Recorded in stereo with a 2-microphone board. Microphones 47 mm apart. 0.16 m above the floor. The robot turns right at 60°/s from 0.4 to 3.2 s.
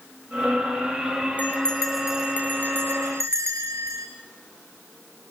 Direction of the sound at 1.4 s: 145° left.